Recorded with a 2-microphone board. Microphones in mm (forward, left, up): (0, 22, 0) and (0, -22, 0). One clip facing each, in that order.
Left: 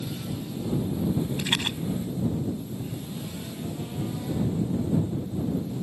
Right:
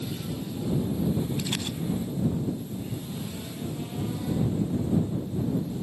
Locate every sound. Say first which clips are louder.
1.4 s a rattle: left 4 dB; 65° left (ahead or behind)